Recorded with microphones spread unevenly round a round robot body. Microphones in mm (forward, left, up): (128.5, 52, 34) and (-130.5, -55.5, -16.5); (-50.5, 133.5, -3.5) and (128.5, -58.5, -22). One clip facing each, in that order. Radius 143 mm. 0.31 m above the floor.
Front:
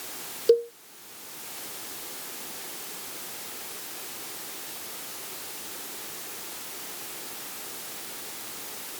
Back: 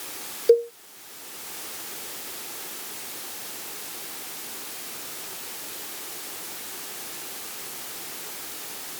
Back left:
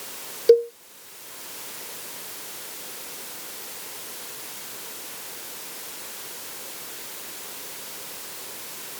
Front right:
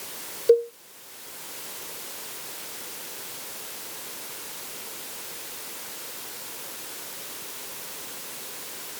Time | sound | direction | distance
0.5 | a cowbell | 85° left | ?